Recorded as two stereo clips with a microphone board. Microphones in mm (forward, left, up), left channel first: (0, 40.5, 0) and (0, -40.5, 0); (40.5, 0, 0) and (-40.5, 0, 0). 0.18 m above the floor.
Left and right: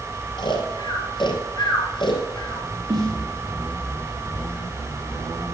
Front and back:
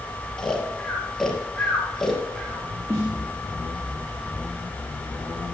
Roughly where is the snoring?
Left.